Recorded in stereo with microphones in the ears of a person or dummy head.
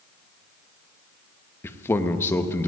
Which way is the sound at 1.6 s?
15° left (ahead or behind).